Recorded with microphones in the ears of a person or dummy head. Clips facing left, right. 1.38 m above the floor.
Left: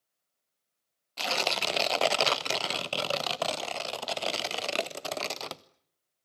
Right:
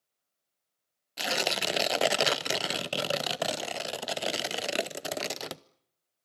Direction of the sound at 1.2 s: 10° right (ahead or behind).